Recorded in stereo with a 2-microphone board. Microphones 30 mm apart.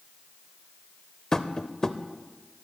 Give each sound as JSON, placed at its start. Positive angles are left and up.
{"t": 1.3, "sound": "tapping", "side_deg": 20, "distance_m": 0.6}